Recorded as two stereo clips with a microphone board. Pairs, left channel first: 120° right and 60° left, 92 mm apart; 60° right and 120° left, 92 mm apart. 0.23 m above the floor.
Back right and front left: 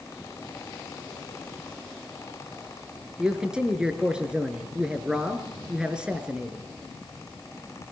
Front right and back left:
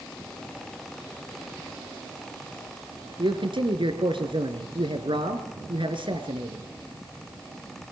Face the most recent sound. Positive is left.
turn(degrees=140)